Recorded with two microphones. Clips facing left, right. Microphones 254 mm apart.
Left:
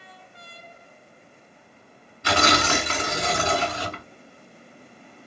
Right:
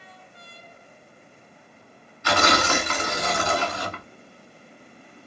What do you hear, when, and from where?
2.2 s tearing paper: 35° left (ahead or behind), 1.2 m